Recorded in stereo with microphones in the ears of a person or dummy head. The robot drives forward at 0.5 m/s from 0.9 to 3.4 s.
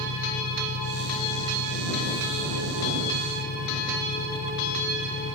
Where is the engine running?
70° left (ahead or behind); by 5.3 s 80° left.